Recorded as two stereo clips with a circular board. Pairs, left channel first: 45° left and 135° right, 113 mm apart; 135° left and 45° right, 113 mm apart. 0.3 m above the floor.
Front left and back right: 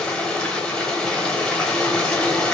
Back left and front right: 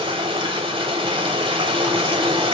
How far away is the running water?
About 0.9 m.